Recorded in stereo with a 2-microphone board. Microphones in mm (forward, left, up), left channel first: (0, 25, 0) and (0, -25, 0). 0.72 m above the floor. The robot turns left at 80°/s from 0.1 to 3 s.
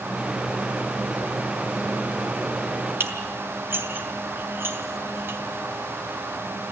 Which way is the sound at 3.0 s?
50° right (ahead or behind).